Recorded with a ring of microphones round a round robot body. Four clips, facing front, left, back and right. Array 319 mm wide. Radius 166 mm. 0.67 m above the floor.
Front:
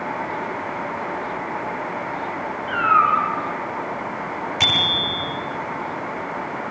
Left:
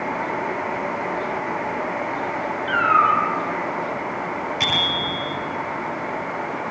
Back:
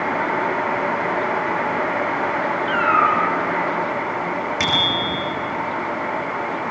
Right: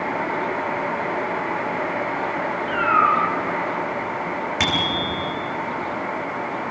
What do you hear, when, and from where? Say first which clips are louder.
2.7 s a cat meowing: left 1 dB, front 1 dB; 135° left, 5.5 m
4.6 s a bicycle bell: right 1 dB, back 3 dB; 110° right, 8 m